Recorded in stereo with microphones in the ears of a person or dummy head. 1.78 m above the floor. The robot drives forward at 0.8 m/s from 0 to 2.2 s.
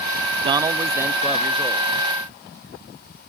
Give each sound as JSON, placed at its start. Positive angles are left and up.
{"t": 0.4, "sound": "a man speaking", "side_deg": -30}